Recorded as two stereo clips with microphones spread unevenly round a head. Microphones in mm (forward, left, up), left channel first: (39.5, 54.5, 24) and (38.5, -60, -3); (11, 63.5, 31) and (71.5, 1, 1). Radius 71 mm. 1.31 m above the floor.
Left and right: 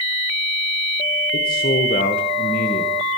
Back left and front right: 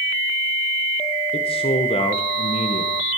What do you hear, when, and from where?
1.3 s a man speaking: 120° left, 1.0 m